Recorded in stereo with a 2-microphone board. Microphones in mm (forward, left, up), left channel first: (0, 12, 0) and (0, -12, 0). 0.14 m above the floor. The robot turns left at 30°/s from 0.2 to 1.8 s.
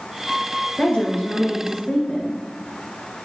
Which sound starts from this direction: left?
A woman speaking, at 0.8 s.